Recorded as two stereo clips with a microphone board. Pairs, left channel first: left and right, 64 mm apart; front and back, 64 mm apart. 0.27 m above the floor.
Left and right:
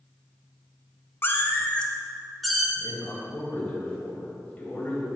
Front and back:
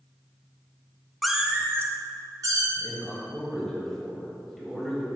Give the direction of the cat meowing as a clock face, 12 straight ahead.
9 o'clock.